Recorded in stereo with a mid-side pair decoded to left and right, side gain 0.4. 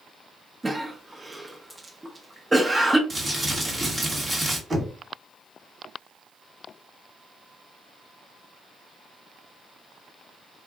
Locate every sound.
0.6 s a cough: 20° right, 0.8 m
3.1 s crumpling: 25° right, 1.1 m
4.7 s knocking: 30° right, 1.4 m